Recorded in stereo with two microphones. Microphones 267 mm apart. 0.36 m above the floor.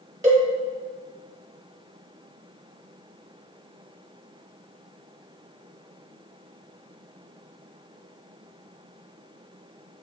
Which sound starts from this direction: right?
A cowbell, at 0.2 s.